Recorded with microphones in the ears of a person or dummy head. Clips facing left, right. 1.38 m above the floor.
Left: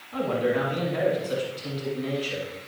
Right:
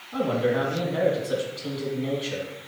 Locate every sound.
0.1 s a man speaking: 20° right (ahead or behind), 2.5 m